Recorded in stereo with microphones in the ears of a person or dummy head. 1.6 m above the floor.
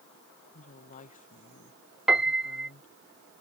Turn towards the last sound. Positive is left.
turn(degrees=0)  # may be behind; listen again after turning